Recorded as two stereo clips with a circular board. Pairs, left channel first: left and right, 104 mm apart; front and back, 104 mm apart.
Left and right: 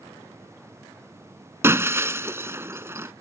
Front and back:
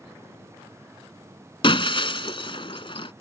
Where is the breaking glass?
25° right.